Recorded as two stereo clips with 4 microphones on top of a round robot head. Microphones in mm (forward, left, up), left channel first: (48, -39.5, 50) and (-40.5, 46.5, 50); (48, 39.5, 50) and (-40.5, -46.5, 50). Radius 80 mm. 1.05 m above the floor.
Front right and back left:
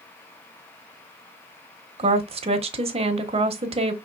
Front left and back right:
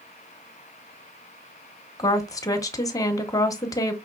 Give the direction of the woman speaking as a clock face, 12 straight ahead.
9 o'clock.